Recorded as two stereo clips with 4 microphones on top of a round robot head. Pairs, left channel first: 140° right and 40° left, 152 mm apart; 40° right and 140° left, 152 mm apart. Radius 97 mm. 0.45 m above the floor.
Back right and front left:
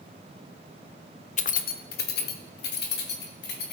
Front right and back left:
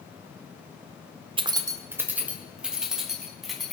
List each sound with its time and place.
1.4 s keys jangling: 170° right, 0.6 m; by 3.7 s 130° right, 2.5 m